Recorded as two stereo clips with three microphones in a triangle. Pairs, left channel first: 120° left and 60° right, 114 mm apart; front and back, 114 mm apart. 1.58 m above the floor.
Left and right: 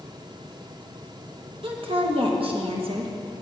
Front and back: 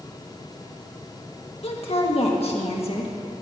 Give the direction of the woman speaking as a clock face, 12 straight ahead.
1 o'clock.